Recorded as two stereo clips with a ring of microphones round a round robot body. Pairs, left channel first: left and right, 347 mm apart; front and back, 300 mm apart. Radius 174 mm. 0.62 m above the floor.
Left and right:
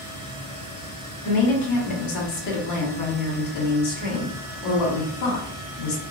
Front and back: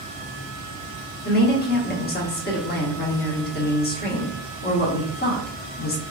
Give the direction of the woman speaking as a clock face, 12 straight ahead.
10 o'clock.